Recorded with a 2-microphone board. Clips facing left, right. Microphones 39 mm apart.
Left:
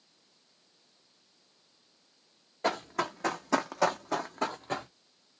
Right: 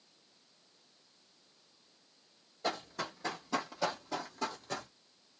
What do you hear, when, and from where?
2.6 s running footsteps: 55° left (ahead or behind), 1.2 m; by 4.9 s 35° left (ahead or behind), 1.0 m